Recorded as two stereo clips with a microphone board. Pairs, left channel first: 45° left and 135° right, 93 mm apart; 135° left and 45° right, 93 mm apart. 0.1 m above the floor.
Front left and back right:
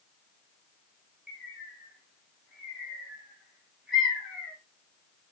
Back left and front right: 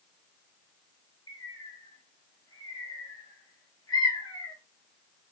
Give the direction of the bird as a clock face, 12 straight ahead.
7 o'clock.